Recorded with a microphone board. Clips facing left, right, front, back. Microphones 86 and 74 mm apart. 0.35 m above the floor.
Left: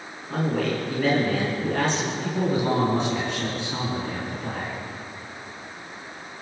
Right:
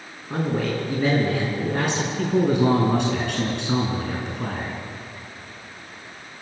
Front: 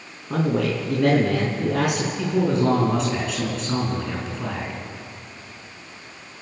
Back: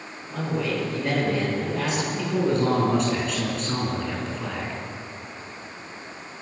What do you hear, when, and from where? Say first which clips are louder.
0.3 s a man speaking: even, front 5 dB; 20° right, 4.5 m
2.2 s a man speaking: right 7 dB, front 2 dB; 90° right, 4.5 m